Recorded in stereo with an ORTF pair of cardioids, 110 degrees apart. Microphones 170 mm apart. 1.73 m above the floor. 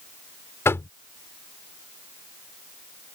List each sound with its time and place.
0.7 s knocking: 15° left